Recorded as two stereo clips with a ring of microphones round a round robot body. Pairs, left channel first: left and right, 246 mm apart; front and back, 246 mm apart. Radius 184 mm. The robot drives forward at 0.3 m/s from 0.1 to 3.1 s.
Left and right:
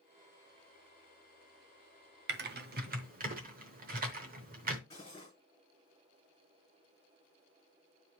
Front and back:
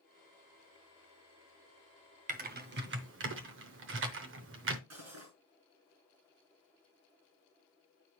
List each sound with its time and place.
2.3 s typing on a keyboard: 130° right, 0.6 m; by 4.8 s 145° right, 0.7 m
4.9 s cutlery clinking: 170° left, 4 m